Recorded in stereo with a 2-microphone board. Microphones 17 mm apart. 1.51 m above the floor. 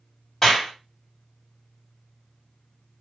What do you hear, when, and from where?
0.4 s a clap: 30° left (ahead or behind), 2.5 m